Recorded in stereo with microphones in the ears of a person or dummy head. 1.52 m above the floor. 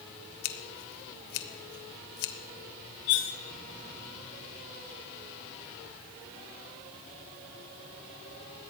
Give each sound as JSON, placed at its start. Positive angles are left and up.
{"t": 0.4, "sound": "scissors", "side_deg": 65, "distance_m": 1.1}
{"t": 3.1, "sound": "cutlery clinking", "side_deg": 30, "distance_m": 0.7}